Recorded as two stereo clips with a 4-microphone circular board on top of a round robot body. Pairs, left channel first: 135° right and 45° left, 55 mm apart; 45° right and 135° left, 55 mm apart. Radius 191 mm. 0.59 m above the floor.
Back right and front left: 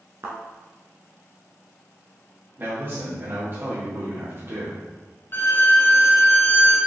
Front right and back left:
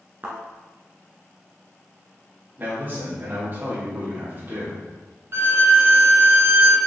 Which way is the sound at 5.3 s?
175° left.